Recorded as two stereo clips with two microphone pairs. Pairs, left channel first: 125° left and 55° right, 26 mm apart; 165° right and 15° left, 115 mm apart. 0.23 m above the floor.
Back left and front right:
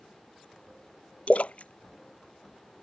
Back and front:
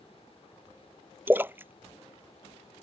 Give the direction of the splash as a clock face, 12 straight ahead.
9 o'clock.